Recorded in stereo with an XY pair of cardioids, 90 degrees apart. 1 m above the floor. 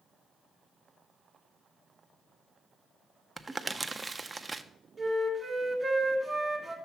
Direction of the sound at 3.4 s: 25° right.